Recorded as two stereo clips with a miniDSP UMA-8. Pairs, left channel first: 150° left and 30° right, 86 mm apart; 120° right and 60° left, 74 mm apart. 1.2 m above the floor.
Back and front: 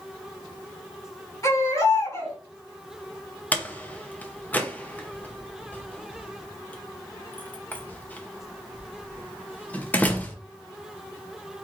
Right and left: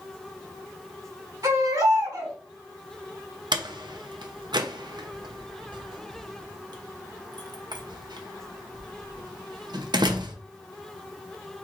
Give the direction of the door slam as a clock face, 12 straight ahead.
9 o'clock.